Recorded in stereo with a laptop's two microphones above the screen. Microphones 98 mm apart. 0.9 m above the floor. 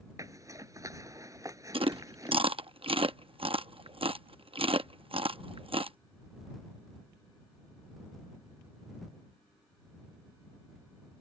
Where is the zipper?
35° right (ahead or behind).